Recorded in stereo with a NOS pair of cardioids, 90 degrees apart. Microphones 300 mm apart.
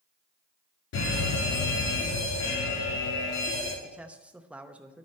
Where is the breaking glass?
No breaking glass in this recording.